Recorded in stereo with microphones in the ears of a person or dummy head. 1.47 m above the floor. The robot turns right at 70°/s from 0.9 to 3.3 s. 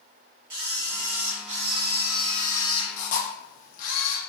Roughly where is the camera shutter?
Right.